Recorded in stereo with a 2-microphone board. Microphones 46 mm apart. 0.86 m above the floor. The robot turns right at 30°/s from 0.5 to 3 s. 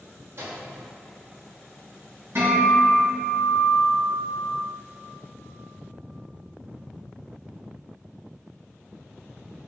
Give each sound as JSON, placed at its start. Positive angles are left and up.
{"t": 0.4, "sound": "a microwave", "side_deg": -45, "distance_m": 0.9}
{"t": 2.4, "sound": "a guitar", "side_deg": -70, "distance_m": 1.7}